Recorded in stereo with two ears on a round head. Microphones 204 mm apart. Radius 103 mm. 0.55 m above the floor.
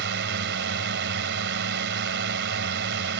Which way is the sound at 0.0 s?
50° right (ahead or behind).